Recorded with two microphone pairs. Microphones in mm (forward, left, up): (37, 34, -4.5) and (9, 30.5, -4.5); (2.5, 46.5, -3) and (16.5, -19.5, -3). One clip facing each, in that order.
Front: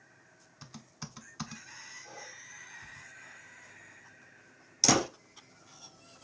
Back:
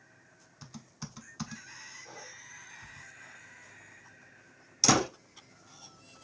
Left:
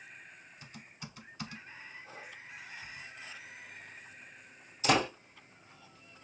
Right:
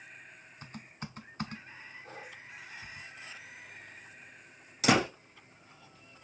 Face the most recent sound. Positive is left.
turn(degrees=-85)